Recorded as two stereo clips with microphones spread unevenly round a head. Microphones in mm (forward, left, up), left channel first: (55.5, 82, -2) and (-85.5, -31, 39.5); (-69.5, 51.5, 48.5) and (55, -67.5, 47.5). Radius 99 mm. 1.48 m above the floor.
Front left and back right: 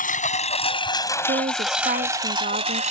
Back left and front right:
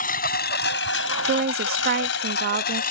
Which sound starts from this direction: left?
A lawn mower, at 0.0 s.